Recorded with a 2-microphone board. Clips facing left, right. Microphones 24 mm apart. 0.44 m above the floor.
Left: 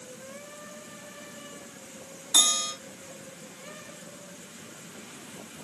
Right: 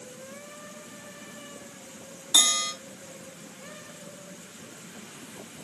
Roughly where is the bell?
Right.